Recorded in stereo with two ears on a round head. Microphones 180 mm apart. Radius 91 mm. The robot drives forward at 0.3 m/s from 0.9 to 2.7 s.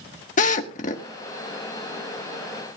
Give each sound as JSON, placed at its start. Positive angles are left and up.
{"t": 0.4, "sound": "a drill", "side_deg": 40, "distance_m": 1.2}